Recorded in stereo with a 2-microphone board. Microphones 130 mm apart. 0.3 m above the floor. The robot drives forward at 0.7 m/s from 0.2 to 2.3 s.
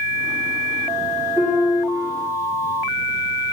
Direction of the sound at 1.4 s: Centre (ahead or behind).